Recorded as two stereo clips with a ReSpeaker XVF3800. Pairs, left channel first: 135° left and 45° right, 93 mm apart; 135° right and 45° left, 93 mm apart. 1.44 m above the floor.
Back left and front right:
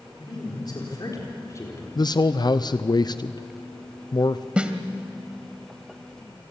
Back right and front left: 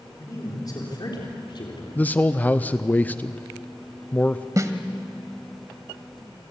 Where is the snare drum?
25° left, 1.5 m.